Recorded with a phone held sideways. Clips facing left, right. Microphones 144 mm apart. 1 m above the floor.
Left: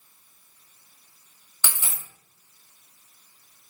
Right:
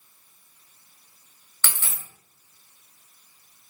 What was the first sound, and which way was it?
A dropped coin, 15° left (ahead or behind).